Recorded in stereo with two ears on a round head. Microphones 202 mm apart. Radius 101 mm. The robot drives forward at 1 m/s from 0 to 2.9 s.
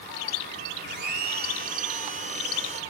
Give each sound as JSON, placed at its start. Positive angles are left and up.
{"t": 0.9, "sound": "a blender", "side_deg": -50}